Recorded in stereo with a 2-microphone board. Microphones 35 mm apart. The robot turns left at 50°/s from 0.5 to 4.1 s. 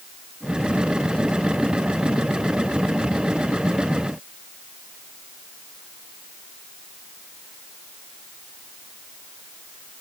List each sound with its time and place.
Only background noise.